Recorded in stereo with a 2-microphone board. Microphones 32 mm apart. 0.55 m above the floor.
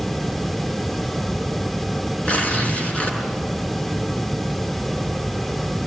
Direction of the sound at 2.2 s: 40° left (ahead or behind).